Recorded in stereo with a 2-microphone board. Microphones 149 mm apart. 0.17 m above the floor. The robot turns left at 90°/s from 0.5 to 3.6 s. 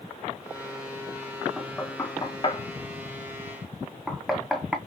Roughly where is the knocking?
Centre.